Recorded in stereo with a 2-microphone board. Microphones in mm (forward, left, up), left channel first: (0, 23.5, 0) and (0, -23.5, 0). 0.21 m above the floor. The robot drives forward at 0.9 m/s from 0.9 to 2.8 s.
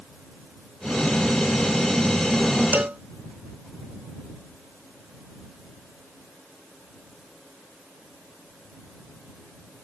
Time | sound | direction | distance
2.7 | a cowbell | 40° right (ahead or behind) | ?